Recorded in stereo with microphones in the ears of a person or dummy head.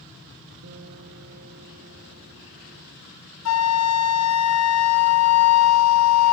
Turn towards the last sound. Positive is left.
turn(degrees=85)